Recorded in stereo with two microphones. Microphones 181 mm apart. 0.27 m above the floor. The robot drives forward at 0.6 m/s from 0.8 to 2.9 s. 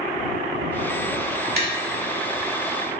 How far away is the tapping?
About 0.7 m.